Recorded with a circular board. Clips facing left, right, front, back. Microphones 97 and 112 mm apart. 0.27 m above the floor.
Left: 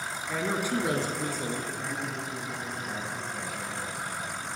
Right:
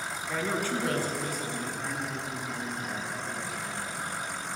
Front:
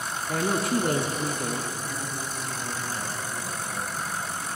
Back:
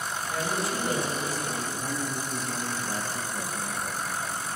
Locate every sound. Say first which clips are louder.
0.3 s a woman speaking: left 1 dB, front 6 dB; straight ahead, 1.8 m; by 1.6 s 35° left, 3.5 m
1.7 s a man speaking: even, back 2 dB; 175° left, 6 m